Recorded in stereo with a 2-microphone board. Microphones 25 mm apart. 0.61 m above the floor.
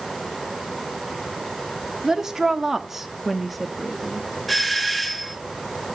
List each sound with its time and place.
2.0 s a woman speaking: 25° right (ahead or behind), 1.5 m; by 4.2 s 5° left (ahead or behind), 1.2 m
4.5 s a doorbell: 5° right (ahead or behind), 1.3 m